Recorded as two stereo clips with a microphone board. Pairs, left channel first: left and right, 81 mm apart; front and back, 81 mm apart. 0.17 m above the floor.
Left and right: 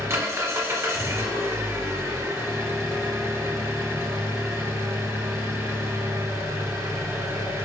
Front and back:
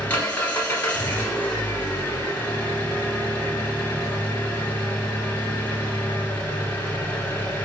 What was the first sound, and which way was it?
An engine running, 60° right.